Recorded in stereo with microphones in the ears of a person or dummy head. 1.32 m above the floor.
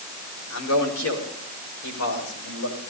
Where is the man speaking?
80° left, 4.5 m; by 2.8 s 75° left (ahead or behind), 6.5 m.